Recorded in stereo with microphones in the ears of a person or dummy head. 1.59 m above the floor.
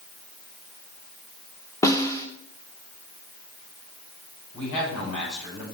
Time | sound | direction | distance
1.8 | a snare drum | 20° left (ahead or behind) | 1.0 m
4.5 | a man speaking | 85° left | 7 m